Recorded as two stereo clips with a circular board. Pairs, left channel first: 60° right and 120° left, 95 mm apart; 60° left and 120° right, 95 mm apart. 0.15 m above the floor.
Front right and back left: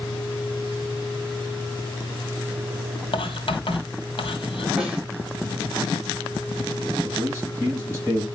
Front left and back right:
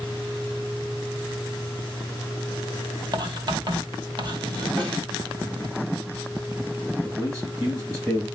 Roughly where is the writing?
Right.